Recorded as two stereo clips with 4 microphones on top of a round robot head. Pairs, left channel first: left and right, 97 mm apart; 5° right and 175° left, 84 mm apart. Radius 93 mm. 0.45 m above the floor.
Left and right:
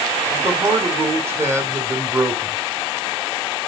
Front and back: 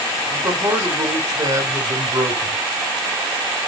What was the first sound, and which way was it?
A man speaking, 145° right.